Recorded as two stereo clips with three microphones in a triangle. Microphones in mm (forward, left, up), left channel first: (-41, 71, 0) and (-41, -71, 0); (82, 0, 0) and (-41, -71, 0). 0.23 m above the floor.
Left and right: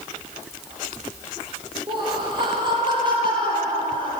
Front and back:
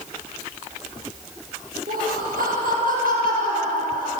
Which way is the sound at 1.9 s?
145° right.